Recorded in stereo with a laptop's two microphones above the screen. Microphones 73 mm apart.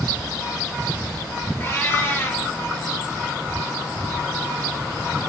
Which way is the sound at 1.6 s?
30° left (ahead or behind).